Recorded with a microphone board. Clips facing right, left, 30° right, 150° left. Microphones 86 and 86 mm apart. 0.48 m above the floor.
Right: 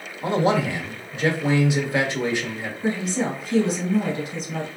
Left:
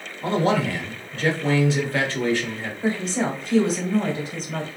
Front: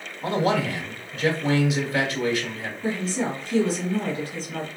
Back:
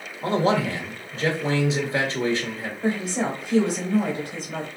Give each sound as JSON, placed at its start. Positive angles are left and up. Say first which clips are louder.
{"t": 0.2, "sound": "a man speaking", "louder": "right 1 dB, back 1 dB", "azimuth_deg": -155, "distance_m": 1.2}
{"t": 2.8, "sound": "a woman speaking", "louder": "left 1 dB, back 2 dB", "azimuth_deg": 135, "distance_m": 1.5}